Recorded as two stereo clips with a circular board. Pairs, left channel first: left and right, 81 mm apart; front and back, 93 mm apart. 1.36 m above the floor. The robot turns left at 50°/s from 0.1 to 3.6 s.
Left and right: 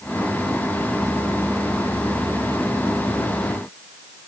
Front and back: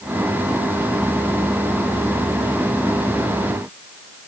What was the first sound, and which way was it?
Only background noise.